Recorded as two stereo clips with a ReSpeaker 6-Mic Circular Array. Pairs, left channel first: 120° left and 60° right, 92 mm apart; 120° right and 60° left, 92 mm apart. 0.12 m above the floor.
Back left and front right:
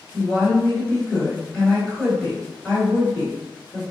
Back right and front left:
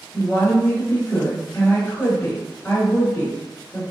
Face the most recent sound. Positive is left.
turn(degrees=-175)